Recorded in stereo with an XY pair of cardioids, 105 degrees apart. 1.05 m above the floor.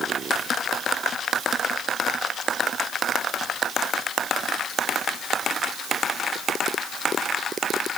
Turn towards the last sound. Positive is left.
No sound to turn to.